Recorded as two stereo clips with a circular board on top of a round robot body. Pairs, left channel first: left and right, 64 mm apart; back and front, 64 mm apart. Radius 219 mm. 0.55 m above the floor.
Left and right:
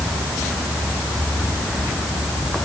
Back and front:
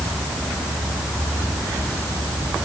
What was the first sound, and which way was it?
Only background noise.